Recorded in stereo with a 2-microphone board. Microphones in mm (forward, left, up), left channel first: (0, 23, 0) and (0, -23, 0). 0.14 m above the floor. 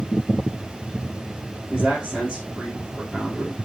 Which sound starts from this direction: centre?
A man speaking, at 1.7 s.